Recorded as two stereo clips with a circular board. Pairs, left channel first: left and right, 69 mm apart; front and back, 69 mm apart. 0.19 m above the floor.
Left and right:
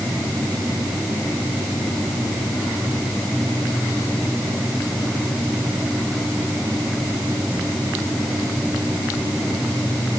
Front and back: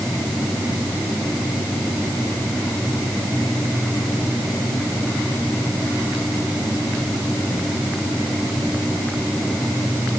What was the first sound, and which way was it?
Only background noise.